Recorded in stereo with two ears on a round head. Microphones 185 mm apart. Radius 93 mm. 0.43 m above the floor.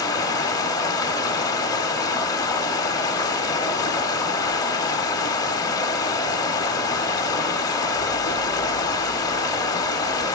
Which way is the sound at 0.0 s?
15° left (ahead or behind).